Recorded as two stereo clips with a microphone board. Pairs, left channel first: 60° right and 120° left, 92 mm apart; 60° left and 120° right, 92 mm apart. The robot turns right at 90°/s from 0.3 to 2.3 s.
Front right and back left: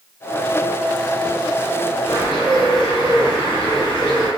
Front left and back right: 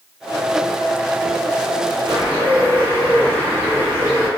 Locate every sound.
2.1 s a bird: 70° right, 2.5 m; by 4.3 s 50° right, 2.5 m